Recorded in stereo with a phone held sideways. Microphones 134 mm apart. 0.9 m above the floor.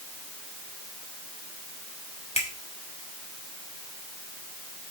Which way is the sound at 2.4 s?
55° left (ahead or behind).